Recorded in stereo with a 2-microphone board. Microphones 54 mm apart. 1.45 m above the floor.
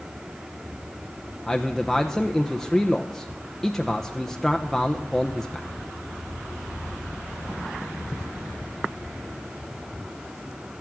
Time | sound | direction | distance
1.5 | a man speaking | 5° left (ahead or behind) | 0.7 m